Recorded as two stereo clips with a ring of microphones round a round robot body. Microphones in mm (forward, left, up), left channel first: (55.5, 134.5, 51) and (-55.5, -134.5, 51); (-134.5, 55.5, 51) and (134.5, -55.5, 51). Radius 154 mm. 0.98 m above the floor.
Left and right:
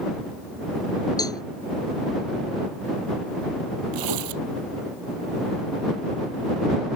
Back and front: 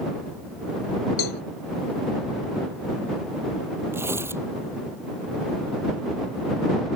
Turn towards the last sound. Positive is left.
turn(degrees=-105)